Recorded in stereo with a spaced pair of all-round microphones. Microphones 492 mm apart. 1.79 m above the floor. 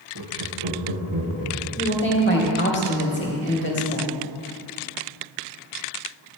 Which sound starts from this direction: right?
Laughter, at 0.1 s.